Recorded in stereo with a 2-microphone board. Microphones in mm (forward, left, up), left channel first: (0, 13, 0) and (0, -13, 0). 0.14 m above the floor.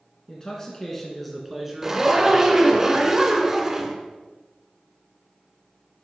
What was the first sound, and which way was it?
A man speaking, 30° left (ahead or behind).